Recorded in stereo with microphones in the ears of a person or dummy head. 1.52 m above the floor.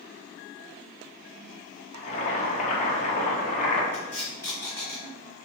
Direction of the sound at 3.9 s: 20° left (ahead or behind).